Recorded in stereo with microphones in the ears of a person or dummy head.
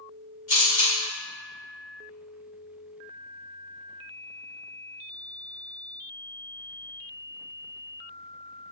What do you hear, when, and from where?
0.5 s a camera shutter: 35° left (ahead or behind), 1.3 m